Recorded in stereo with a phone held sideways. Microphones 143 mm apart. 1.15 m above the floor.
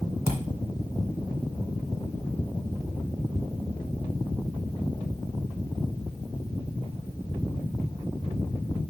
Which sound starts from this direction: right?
A thud, at 0.3 s.